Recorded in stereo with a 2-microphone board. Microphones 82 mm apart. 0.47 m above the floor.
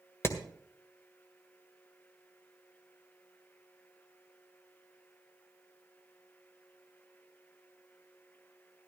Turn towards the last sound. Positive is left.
turn(degrees=35)  # may be behind; listen again after turning